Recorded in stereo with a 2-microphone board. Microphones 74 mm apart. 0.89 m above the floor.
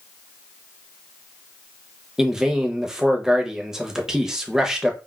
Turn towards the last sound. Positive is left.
turn(degrees=-10)  # may be behind; listen again after turning